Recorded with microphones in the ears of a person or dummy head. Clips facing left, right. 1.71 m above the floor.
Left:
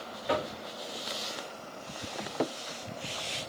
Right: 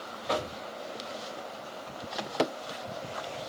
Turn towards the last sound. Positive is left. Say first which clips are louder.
# left 1 dB
turn(degrees=5)  # may be behind; listen again after turning